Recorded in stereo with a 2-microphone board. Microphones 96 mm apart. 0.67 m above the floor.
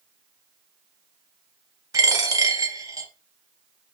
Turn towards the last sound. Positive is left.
turn(degrees=-35)  # may be behind; listen again after turning